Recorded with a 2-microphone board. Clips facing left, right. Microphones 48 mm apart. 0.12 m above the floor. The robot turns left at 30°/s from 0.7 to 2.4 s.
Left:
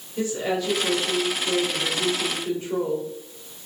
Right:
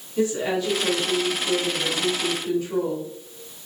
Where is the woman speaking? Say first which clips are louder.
Right 2 dB; 165° right, 1.8 m; by 3.6 s 140° left, 1.8 m.